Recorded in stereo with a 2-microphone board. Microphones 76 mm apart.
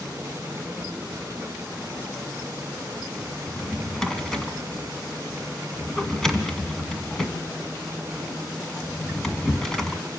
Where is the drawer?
5° left (ahead or behind), 1.8 m.